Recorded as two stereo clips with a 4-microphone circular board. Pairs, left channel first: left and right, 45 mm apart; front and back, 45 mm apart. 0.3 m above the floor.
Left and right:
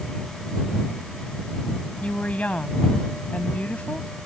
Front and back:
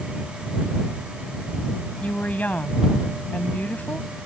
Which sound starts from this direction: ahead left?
A woman speaking, at 2.0 s.